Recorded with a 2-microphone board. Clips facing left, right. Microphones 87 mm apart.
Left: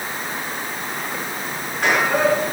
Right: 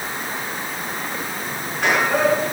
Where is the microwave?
No microwave in this recording.